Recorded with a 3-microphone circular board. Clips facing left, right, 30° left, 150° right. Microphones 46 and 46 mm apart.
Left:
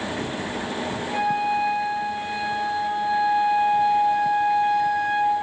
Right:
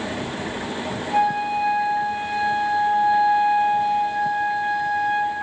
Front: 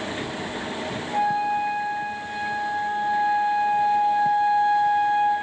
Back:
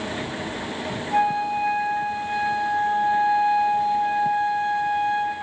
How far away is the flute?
About 0.8 m.